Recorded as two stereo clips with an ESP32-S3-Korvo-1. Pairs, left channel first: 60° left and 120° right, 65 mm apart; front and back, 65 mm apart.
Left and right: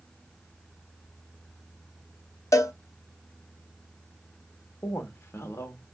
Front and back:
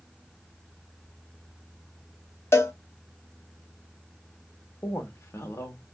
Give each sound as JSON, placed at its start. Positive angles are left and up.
{"t": 2.5, "sound": "a cowbell", "azimuth_deg": 40, "distance_m": 0.7}
{"t": 4.8, "sound": "a woman speaking", "azimuth_deg": 30, "distance_m": 1.1}